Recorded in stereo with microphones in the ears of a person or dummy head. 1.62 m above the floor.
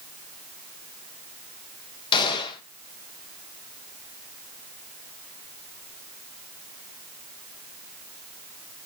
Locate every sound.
2.1 s a gunshot: 25° left (ahead or behind), 1.2 m